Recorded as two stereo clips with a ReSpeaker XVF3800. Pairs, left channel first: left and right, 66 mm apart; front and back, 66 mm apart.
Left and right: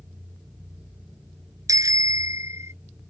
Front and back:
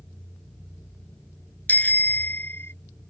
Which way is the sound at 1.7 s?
65° right.